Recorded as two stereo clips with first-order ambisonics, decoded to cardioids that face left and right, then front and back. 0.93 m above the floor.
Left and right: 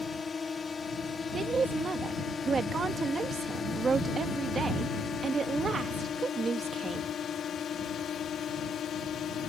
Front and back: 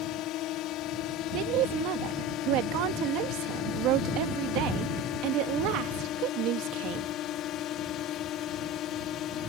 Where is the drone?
20° left; by 9.5 s 40° left.